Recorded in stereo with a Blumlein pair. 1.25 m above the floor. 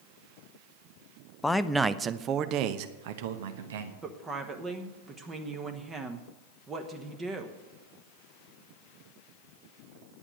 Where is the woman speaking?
15° right, 1.1 m.